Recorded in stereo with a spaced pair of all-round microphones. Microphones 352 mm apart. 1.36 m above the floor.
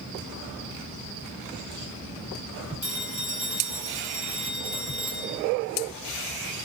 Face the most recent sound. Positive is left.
turn(degrees=-65)  # may be behind; listen again after turning